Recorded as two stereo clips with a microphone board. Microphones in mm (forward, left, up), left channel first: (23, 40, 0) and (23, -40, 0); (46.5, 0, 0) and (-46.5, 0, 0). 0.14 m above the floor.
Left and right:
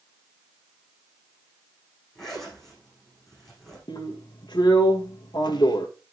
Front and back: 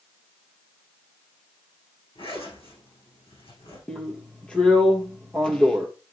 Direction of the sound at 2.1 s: 5° left.